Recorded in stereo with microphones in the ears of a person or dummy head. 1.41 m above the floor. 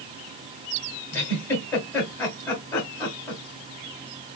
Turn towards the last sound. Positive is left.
turn(degrees=10)  # may be behind; listen again after turning